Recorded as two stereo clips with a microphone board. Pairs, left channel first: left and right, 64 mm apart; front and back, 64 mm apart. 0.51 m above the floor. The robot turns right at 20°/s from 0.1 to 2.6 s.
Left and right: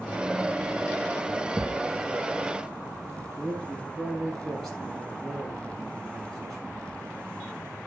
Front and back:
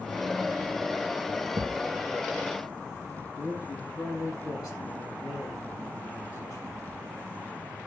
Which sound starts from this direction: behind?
A thud, at 1.6 s.